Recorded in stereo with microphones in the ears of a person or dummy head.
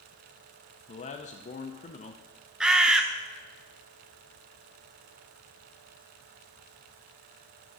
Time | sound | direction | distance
0.9 | a man speaking | 35° left (ahead or behind) | 0.6 m
2.6 | a bird | centre (ahead or behind) | 0.6 m